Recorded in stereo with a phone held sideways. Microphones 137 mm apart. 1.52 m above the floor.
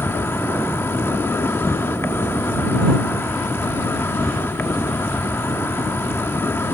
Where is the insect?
20° left (ahead or behind).